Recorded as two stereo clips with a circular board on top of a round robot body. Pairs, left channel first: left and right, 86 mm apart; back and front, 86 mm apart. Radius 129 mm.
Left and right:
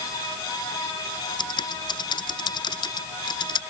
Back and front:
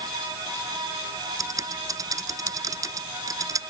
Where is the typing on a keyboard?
50° left.